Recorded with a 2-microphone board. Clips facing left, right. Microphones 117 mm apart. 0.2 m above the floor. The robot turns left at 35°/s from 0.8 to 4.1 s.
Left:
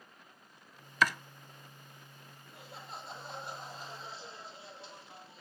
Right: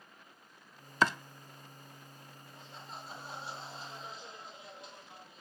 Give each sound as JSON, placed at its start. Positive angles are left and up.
{"t": 1.0, "sound": "chopping", "side_deg": -30, "distance_m": 0.5}
{"t": 2.5, "sound": "laughter", "azimuth_deg": 90, "distance_m": 6.0}